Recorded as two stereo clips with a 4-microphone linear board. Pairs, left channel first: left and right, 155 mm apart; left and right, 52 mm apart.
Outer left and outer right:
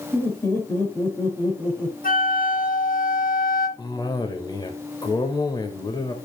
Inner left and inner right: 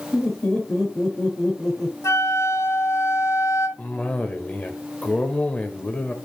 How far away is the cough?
About 1.1 m.